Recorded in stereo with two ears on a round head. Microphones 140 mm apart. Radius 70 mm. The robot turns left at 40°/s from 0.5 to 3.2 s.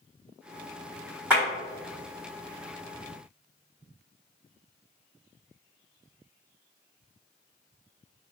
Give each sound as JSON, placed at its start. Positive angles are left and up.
{"t": 1.3, "sound": "a clap", "side_deg": -10, "distance_m": 1.5}